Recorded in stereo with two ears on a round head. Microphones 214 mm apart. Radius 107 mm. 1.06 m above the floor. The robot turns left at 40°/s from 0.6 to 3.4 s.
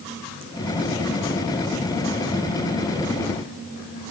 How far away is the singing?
I don't hear singing.